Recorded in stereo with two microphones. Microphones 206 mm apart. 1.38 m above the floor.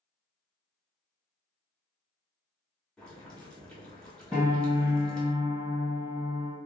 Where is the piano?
10° right (ahead or behind), 1.6 m.